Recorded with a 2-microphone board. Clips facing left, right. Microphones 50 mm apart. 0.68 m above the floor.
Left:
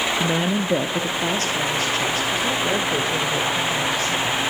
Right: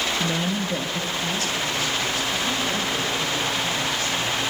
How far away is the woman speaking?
About 0.5 m.